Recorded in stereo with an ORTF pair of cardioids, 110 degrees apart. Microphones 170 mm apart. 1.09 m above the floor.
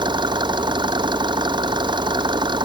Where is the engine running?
25° right.